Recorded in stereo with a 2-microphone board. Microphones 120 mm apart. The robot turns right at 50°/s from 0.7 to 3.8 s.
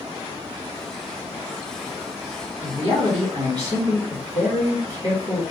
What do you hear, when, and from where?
2.6 s a man speaking: 90° right, 1.7 m; by 5.4 s 30° right, 1.7 m